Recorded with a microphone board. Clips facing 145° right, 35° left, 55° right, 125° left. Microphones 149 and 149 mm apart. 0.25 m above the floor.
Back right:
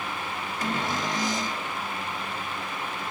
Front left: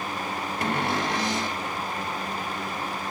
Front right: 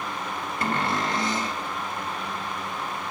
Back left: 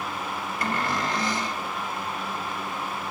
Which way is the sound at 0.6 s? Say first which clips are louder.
Front left 2 dB, front right 2 dB; 5° left.